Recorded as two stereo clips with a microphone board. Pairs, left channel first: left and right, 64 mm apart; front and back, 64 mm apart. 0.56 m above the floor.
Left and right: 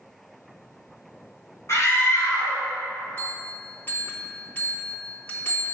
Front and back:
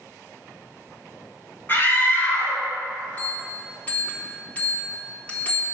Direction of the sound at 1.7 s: 55° left.